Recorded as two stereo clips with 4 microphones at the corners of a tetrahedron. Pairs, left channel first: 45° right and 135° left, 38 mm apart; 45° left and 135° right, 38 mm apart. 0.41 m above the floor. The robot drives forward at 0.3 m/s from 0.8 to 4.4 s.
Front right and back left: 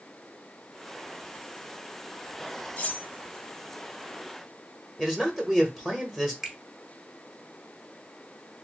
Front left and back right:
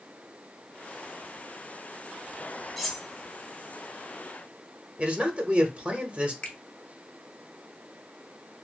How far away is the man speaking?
About 0.9 m.